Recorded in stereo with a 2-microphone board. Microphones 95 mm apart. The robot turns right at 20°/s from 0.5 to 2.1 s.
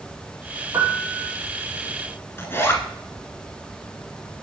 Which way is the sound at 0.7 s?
35° right (ahead or behind).